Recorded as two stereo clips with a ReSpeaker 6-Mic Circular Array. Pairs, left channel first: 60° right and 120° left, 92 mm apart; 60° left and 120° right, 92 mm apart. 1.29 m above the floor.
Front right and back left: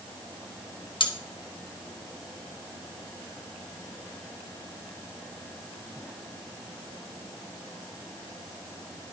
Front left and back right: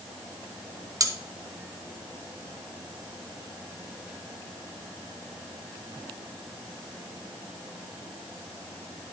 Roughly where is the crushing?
I don't hear crushing.